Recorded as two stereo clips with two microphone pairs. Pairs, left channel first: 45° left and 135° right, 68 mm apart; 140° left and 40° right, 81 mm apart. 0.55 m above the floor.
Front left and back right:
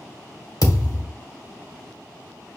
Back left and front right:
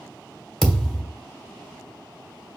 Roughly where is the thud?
Ahead left.